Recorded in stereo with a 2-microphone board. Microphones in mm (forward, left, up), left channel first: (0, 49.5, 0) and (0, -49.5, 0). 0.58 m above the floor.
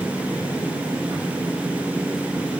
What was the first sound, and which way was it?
Only background noise.